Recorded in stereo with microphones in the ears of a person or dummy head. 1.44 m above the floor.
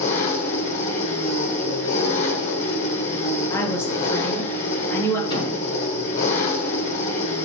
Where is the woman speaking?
15° left (ahead or behind), 3 m.